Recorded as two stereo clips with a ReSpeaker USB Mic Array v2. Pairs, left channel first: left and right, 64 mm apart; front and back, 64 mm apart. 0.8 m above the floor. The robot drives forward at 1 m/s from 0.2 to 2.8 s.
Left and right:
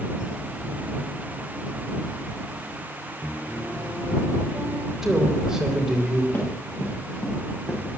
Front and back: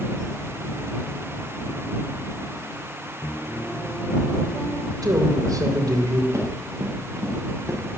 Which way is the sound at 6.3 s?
140° left.